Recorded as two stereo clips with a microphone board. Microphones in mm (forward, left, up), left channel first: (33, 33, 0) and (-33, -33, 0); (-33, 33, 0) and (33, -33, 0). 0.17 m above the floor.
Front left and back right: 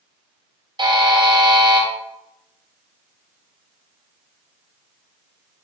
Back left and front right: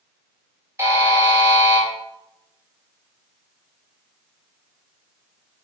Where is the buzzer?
105° right, 2.5 m.